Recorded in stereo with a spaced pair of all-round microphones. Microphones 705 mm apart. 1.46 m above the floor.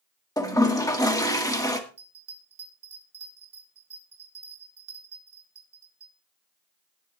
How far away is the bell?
About 3 m.